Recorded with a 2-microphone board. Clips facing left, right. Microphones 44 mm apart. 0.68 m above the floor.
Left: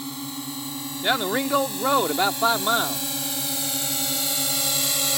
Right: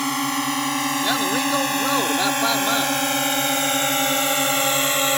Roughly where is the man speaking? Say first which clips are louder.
Left 3 dB; centre.